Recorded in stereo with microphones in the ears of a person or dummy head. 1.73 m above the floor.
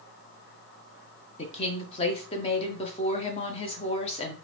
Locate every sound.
1.4 s a woman speaking: 35° left (ahead or behind), 1.0 m